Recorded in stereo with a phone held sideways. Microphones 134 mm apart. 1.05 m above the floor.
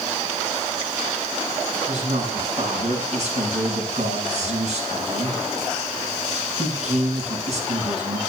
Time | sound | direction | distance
1.9 | a man speaking | 55° right (ahead or behind) | 7.5 m